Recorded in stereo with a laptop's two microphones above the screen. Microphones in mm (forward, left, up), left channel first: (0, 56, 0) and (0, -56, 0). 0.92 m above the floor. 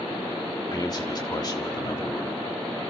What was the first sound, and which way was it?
A man speaking, 40° left (ahead or behind).